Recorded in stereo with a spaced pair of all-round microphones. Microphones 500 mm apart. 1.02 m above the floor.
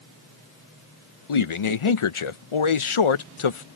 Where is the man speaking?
75° left (ahead or behind).